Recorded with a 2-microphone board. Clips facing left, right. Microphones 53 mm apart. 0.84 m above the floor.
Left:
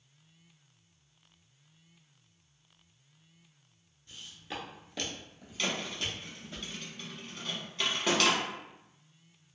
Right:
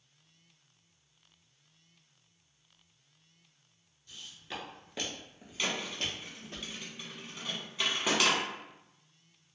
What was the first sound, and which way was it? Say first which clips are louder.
Footsteps: left 1 dB; 20° left (ahead or behind).